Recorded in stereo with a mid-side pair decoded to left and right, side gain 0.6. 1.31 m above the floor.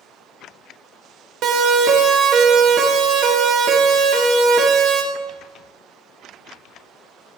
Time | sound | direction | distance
1.4 | a siren | 60° right | 3.5 m